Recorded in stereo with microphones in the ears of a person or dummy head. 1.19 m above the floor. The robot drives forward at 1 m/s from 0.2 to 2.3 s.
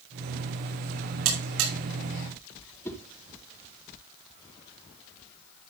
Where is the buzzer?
75° right (ahead or behind), 6 m; by 1.7 s 80° right, 6 m.